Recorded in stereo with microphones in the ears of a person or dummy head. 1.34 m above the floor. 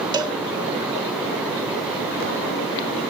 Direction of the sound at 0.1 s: 25° right (ahead or behind).